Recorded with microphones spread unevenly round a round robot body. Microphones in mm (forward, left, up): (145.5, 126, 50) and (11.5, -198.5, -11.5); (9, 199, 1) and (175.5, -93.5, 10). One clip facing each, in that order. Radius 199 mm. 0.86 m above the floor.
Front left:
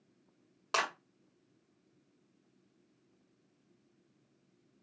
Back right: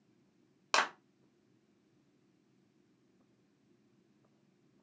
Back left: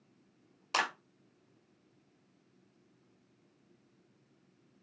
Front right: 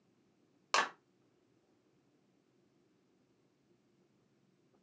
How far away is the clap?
About 1.9 m.